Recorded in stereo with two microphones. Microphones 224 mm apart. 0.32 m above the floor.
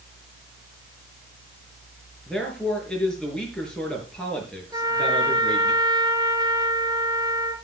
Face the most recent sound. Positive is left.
turn(degrees=-15)  # may be behind; listen again after turning